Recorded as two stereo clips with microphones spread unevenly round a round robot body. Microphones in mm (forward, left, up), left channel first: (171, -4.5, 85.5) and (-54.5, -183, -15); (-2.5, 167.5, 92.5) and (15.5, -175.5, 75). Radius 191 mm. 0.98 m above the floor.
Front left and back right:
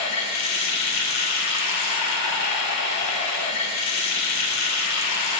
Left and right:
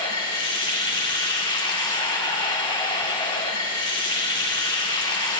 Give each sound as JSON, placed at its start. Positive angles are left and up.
{"t": 0.0, "sound": "running water", "azimuth_deg": 15, "distance_m": 1.5}